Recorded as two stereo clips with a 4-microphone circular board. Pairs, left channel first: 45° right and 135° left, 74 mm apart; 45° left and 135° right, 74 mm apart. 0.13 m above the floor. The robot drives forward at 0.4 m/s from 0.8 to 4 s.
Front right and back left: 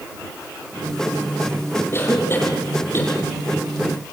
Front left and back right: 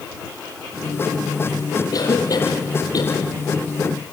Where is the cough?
10° left, 4.5 m.